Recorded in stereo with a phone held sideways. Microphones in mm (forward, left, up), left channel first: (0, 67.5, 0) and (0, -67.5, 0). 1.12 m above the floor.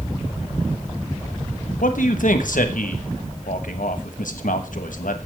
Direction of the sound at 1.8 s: 80° left.